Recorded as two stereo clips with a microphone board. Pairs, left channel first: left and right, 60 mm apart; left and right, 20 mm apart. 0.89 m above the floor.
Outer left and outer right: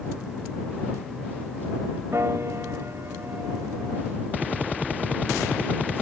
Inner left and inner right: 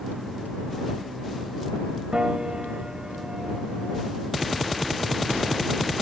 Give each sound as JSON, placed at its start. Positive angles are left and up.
{"t": 2.1, "sound": "a piano", "side_deg": -50}